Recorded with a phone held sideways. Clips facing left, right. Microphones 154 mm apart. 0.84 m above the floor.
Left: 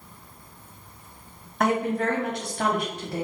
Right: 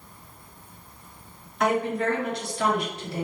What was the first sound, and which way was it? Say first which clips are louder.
A woman speaking: even; 50° left (ahead or behind).